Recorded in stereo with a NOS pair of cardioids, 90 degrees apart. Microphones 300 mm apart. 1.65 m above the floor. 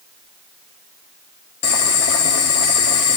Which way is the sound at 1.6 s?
55° left.